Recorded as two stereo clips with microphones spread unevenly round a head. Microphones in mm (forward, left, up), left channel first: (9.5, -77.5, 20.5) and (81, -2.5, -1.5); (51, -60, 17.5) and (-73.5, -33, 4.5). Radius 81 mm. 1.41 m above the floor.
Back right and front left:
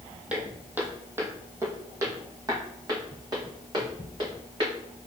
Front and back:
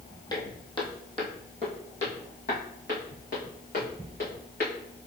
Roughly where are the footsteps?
Ahead right.